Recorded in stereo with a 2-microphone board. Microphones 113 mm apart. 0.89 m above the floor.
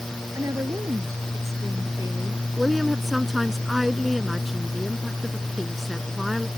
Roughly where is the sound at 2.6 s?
Centre.